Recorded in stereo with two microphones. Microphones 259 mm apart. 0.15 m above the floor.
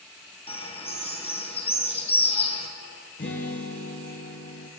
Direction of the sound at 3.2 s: 45° left (ahead or behind).